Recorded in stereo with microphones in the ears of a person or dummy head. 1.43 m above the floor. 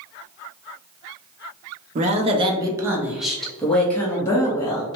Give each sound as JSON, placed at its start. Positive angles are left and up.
{"t": 1.9, "sound": "a woman speaking", "side_deg": -40, "distance_m": 0.8}